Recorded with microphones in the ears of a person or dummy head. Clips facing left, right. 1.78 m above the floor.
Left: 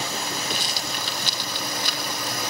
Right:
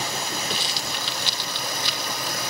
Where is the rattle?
40° left (ahead or behind).